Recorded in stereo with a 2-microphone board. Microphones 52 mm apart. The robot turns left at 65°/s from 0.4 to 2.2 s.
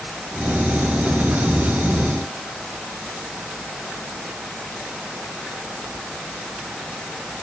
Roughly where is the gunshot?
I don't hear a gunshot.